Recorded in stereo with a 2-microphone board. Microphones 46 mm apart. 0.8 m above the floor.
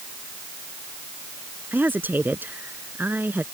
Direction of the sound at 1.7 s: 45° right (ahead or behind).